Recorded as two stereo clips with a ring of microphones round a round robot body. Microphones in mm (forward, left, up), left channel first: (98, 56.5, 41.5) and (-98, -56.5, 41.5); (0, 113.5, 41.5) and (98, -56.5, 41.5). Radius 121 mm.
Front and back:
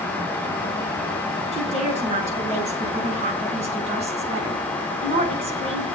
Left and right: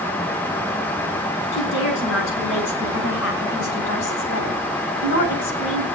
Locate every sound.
1.5 s a woman speaking: 150° left, 7.5 m; by 5.9 s 145° left, 4.5 m